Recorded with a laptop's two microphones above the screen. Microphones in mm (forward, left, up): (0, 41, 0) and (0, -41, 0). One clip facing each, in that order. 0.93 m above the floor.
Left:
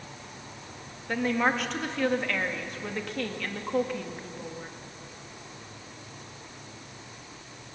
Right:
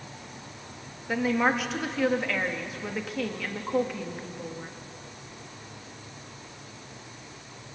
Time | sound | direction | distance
1.1 | a woman speaking | 5° right (ahead or behind) | 1.6 m